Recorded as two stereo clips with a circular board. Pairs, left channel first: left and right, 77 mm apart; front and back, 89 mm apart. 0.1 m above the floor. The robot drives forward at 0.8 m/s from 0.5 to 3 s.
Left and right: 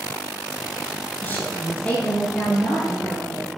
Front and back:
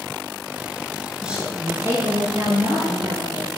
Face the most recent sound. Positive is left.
turn(degrees=160)